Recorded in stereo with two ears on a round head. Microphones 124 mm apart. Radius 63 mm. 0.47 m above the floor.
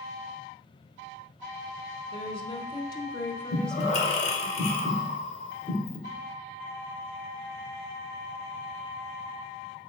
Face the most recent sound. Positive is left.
turn(degrees=50)  # may be behind; listen again after turning